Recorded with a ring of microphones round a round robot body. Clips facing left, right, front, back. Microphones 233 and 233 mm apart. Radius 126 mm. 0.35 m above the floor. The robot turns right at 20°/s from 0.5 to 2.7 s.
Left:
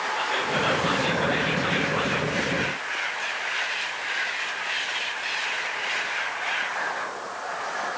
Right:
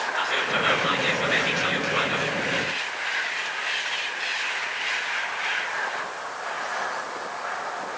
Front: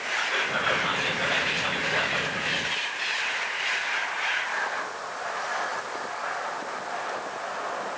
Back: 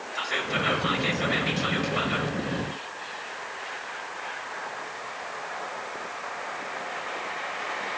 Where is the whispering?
145° right, 1.7 m; by 2.4 s 105° right, 1.7 m.